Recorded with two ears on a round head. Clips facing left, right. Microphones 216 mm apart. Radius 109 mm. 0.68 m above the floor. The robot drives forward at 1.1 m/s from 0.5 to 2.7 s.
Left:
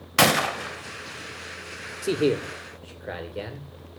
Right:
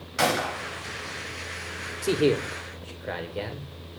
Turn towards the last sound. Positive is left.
turn(degrees=5)  # may be behind; listen again after turning